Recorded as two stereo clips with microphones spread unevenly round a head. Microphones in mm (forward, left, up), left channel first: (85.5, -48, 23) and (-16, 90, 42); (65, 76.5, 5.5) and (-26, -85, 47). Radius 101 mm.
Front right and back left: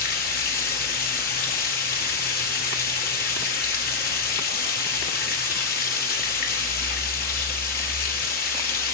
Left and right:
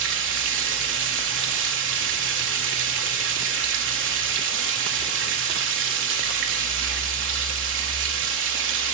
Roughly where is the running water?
Right.